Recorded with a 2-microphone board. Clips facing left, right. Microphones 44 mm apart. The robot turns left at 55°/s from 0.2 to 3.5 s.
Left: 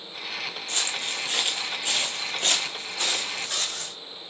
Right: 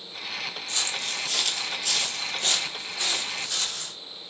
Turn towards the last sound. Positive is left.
turn(degrees=55)  # may be behind; listen again after turning